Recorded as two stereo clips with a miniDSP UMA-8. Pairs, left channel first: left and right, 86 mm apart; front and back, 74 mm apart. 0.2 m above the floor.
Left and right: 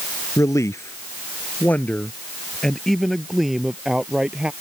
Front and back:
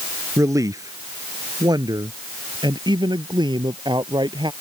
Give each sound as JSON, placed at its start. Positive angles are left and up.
{"t": 0.4, "sound": "a man speaking", "azimuth_deg": 140}